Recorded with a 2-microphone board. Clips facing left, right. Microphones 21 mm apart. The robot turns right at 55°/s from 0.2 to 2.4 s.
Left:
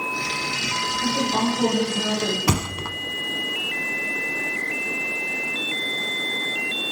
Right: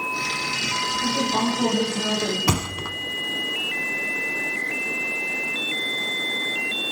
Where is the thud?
35° left (ahead or behind), 0.7 m.